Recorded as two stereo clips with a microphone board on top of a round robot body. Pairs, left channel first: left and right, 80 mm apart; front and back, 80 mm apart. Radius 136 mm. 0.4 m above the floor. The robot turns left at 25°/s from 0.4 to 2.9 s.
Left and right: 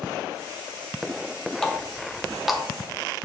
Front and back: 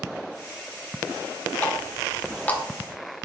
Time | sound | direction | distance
1.6 | a running tap | 15° left | 0.7 m